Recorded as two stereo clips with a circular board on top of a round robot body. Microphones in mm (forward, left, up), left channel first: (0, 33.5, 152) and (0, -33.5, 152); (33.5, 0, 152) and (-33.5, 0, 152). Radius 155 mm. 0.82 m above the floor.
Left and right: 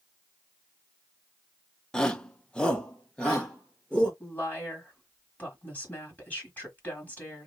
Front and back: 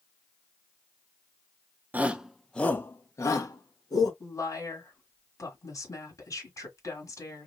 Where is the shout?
155° left, 0.8 m; by 4.1 s 10° left, 1.5 m.